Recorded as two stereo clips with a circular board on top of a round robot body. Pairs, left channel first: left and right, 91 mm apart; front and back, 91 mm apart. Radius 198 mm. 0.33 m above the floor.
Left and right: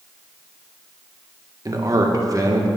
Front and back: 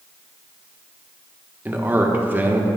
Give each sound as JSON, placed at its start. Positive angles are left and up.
{"t": 1.6, "sound": "a man speaking", "azimuth_deg": -120, "distance_m": 1.3}